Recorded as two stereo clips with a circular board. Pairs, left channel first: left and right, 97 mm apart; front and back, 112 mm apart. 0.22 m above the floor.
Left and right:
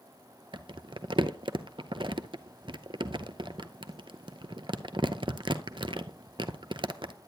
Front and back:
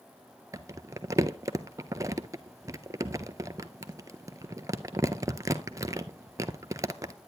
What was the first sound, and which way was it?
Crumpling, 120° right.